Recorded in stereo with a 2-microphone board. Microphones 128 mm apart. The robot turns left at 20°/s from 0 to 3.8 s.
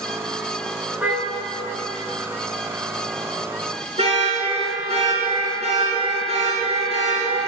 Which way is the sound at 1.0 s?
10° right (ahead or behind).